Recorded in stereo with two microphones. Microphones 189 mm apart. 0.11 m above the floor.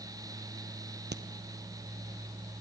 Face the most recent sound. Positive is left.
turn(degrees=-65)  # may be behind; listen again after turning